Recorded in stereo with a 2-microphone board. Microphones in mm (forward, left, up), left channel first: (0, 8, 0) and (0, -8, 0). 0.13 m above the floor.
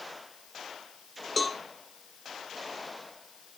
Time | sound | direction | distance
1.4 | a cowbell | 5° left (ahead or behind) | 0.8 m